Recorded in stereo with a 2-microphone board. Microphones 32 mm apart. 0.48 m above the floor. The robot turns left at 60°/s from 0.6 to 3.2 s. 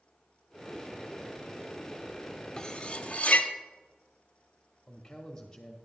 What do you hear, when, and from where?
2.6 s cutlery clinking: 20° left (ahead or behind), 0.6 m; by 3.5 s 40° left (ahead or behind), 0.6 m
4.9 s a man speaking: 15° left (ahead or behind), 0.9 m